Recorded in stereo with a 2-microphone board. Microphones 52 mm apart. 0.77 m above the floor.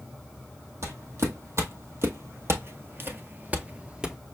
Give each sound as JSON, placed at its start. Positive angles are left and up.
{"t": 0.8, "sound": "footsteps", "side_deg": -60, "distance_m": 1.8}